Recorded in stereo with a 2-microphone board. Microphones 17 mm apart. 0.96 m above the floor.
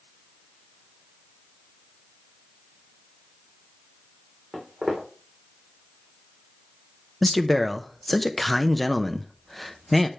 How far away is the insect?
I don't hear an insect.